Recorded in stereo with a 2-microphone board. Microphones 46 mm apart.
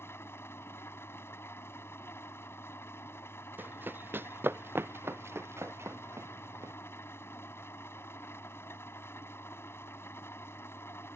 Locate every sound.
0.0 s an engine running: 65° left (ahead or behind)
3.6 s running footsteps: 45° right (ahead or behind); by 6.7 s 80° right